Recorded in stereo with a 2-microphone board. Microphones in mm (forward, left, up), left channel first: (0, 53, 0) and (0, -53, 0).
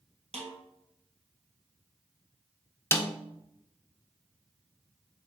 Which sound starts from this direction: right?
A snare drum, at 0.3 s.